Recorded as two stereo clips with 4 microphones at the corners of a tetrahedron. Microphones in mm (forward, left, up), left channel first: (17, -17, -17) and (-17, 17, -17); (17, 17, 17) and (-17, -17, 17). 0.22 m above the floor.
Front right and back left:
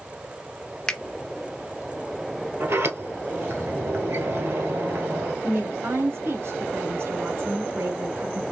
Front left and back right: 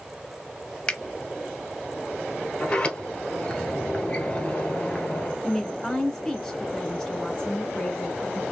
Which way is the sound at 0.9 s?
15° left.